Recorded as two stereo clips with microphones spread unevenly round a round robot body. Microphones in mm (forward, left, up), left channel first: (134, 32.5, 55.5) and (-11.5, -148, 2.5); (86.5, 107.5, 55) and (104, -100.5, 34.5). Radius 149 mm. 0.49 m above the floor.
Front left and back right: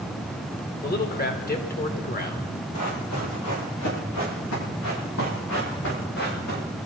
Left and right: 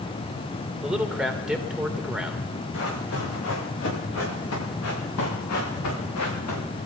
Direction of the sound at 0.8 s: Straight ahead.